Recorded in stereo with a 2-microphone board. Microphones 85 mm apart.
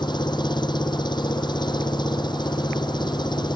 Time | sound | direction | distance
0.0 | an engine running | 60° left (ahead or behind) | ?